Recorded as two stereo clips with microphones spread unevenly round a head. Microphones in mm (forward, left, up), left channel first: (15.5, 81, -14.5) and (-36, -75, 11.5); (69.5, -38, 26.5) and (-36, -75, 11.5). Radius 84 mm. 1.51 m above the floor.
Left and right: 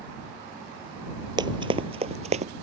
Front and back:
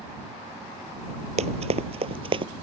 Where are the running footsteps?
155° right; by 2.5 s 125° right.